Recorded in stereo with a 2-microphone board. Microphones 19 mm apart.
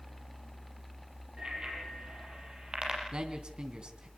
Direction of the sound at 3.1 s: 55° right (ahead or behind).